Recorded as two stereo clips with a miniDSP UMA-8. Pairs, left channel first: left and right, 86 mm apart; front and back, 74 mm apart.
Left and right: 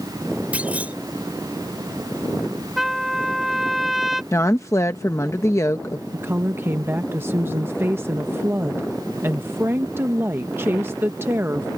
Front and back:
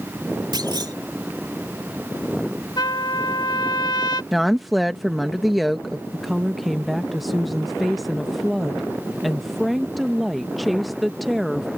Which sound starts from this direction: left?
A woman speaking, at 4.3 s.